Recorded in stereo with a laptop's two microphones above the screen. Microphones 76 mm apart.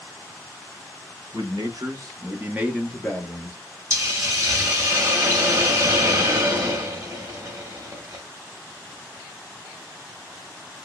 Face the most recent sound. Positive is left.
turn(degrees=-40)  # may be behind; listen again after turning